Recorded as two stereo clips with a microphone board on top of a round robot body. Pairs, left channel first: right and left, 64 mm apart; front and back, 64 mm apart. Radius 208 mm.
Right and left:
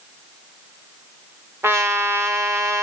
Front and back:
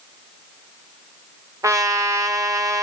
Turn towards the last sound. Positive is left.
turn(degrees=140)